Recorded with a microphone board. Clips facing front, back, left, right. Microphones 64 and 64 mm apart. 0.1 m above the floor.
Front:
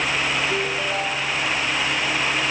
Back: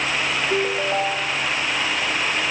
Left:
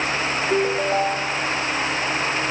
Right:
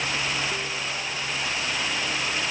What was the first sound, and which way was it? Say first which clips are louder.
A ringtone: back 3 dB, left 11 dB; 110° left.